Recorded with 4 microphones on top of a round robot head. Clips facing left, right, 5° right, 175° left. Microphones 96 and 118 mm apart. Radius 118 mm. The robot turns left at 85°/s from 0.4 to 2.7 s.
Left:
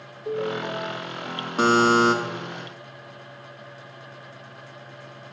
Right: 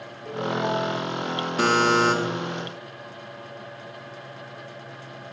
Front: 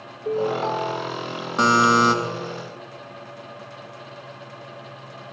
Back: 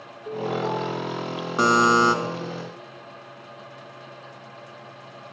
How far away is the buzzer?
About 1.0 m.